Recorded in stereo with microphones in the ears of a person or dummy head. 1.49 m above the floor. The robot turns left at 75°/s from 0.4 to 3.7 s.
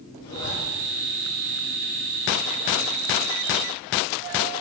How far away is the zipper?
About 4.5 m.